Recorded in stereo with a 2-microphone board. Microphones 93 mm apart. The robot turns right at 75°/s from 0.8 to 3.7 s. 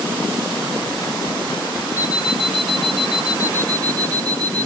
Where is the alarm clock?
35° left, 0.9 m; by 4.7 s 165° left, 0.9 m.